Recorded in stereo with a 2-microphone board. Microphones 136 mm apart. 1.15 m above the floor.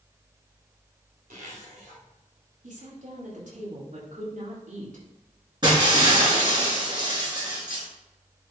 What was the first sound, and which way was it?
A zipper, 90° right.